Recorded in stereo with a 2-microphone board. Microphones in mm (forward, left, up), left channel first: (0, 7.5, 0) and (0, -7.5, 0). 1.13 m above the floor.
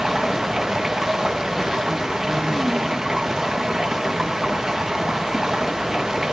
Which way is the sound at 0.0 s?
40° right (ahead or behind).